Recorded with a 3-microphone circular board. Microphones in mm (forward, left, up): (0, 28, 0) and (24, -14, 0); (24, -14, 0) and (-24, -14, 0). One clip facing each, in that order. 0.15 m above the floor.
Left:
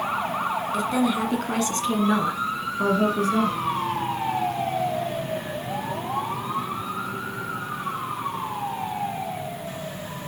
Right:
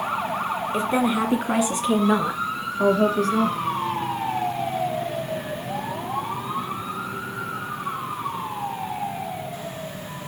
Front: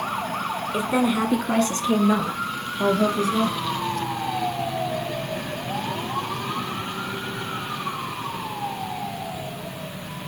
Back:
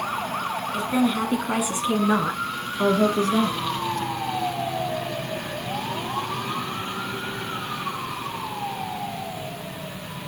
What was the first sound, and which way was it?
A woman speaking, 45° right.